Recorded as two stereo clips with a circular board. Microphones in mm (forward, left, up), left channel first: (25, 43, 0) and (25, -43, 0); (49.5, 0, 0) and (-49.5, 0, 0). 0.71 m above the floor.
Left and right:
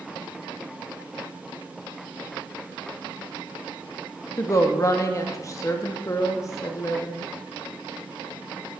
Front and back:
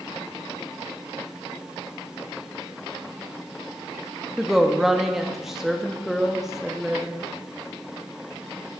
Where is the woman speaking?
95° left, 0.7 m.